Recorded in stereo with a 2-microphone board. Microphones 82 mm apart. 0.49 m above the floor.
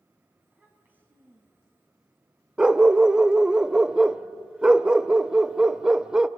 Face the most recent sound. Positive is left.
turn(degrees=-10)  # may be behind; listen again after turning